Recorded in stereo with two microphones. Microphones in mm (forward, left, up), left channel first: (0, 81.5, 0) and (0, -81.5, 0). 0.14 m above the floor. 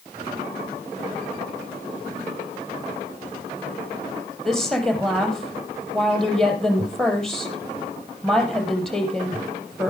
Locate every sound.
4.5 s a woman speaking: 5° left (ahead or behind), 5 m